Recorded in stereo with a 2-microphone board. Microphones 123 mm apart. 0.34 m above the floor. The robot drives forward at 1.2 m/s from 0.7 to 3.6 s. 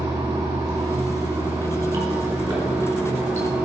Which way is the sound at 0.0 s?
30° right (ahead or behind).